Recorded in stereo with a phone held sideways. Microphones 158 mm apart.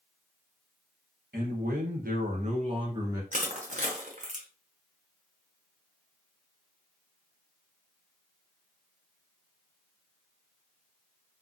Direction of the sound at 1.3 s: 75° right (ahead or behind).